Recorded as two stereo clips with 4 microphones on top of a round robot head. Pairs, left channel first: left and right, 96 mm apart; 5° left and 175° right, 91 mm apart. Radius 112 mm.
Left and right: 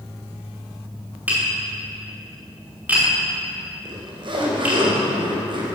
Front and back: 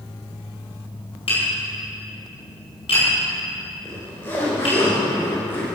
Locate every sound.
1.3 s tapping: 15° right, 5 m
3.9 s a zipper: 60° right, 3 m